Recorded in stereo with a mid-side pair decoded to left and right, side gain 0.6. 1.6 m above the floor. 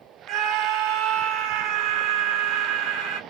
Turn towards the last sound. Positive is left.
turn(degrees=-70)